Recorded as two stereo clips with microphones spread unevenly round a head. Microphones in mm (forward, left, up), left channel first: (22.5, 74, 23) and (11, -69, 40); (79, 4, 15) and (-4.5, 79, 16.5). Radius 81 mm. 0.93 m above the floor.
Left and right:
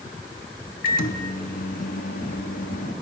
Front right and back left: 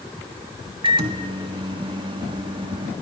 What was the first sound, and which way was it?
A microwave, 100° left.